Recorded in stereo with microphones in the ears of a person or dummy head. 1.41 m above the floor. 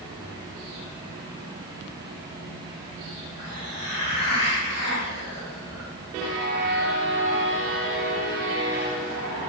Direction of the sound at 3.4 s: 55° left (ahead or behind).